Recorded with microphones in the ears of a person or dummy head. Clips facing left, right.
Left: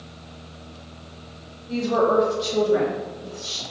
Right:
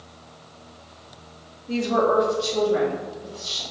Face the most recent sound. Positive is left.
turn(degrees=60)  # may be behind; listen again after turning